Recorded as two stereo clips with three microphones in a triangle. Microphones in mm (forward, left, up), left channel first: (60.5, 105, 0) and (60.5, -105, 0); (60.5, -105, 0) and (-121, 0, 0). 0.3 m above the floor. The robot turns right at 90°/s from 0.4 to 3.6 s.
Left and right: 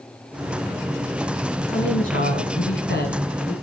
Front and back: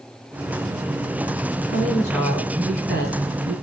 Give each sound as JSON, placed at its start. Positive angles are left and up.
{"t": 1.7, "sound": "a woman speaking", "azimuth_deg": 10, "distance_m": 3.5}